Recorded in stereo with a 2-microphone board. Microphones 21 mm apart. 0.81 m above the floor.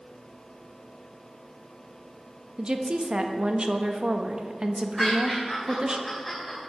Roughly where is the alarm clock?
No alarm clock in this recording.